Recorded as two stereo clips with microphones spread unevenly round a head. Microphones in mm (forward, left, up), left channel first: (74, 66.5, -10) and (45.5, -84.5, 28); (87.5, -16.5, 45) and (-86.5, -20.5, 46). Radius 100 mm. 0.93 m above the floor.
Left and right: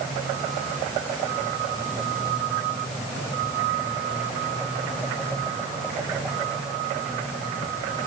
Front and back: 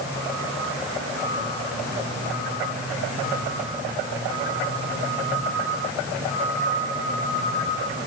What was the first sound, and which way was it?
Only background noise.